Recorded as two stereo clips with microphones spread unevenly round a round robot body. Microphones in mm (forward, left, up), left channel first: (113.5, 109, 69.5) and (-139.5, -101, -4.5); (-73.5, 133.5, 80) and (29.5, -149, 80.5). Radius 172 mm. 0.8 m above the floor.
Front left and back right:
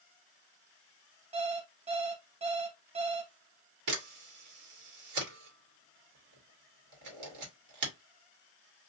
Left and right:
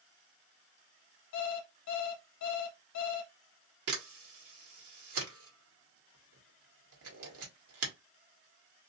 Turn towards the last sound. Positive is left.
turn(degrees=-110)